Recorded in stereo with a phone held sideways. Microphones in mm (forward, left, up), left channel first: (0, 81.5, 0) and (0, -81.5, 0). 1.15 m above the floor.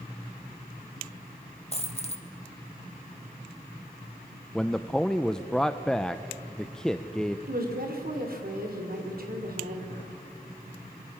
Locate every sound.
1.7 s a dropped coin: 40° left (ahead or behind), 1.4 m
4.5 s a man speaking: 5° left (ahead or behind), 0.6 m
7.5 s a woman speaking: 65° right (ahead or behind), 3.5 m